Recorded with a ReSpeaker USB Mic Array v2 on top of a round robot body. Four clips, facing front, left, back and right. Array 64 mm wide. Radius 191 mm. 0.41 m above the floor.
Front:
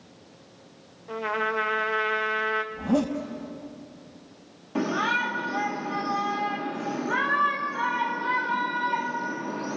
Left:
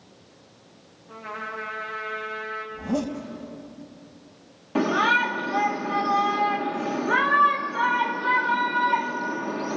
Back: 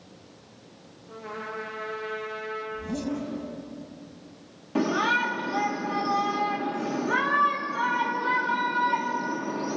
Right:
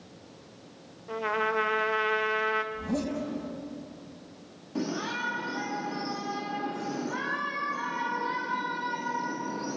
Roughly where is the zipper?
Ahead.